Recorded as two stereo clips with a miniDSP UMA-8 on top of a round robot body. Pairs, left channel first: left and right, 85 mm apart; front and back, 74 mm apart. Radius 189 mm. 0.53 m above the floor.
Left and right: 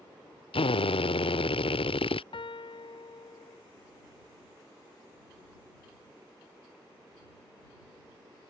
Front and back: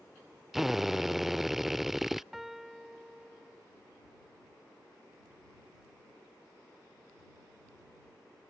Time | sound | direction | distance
0.5 | a drill | 95° left | ?
2.3 | a piano | 95° left | ?